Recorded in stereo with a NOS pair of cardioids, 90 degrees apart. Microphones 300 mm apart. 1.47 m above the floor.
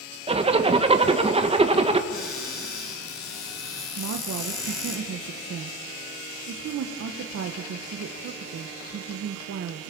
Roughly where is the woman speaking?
Ahead right.